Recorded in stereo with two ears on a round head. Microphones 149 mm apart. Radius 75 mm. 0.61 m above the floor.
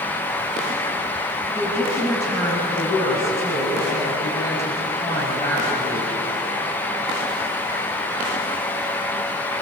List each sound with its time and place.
1.5 s a woman speaking: 20° left (ahead or behind), 5 m